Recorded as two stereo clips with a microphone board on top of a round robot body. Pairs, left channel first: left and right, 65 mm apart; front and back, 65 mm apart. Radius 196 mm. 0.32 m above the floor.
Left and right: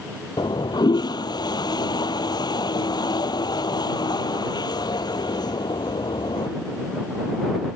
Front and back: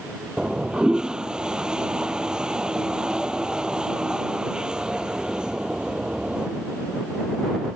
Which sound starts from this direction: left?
A toilet flushing, at 0.4 s.